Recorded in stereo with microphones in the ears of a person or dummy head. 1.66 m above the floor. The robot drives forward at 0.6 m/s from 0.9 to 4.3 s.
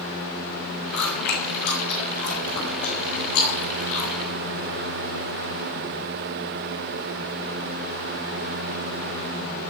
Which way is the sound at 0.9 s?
60° left (ahead or behind).